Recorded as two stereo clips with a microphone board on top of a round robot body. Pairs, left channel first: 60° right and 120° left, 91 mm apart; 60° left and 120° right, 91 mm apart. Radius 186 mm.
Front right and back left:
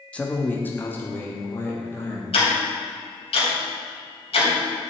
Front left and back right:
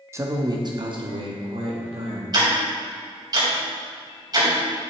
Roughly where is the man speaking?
Behind right.